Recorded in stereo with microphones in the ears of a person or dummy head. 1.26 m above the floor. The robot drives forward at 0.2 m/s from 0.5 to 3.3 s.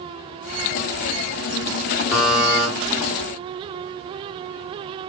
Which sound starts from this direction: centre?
A buzzer, at 2.1 s.